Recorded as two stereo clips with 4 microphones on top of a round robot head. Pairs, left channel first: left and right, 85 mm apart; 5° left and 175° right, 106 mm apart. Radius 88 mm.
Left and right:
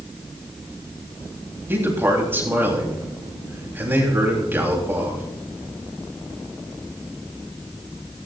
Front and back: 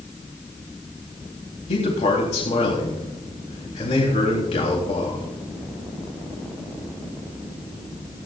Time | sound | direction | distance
1.7 | a man speaking | 25° right | 4 m